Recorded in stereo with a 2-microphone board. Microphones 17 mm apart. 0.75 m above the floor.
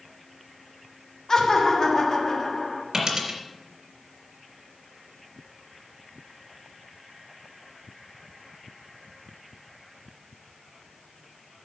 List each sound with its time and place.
1.3 s laughter: 45° left (ahead or behind), 1.5 m
2.9 s a dropped coin: 35° right (ahead or behind), 3.5 m